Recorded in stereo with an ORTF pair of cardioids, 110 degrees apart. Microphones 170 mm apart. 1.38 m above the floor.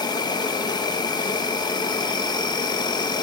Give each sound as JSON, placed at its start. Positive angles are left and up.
{"t": 0.0, "sound": "an insect", "azimuth_deg": 25, "distance_m": 1.8}